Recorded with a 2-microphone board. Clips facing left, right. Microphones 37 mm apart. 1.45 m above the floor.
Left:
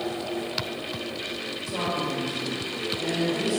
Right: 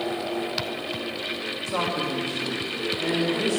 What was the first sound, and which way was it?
A man speaking, 60° right (ahead or behind).